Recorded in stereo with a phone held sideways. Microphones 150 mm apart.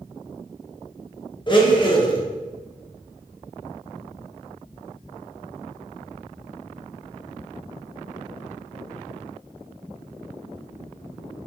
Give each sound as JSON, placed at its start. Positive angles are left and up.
{"t": 1.5, "sound": "a blender", "side_deg": 30, "distance_m": 0.6}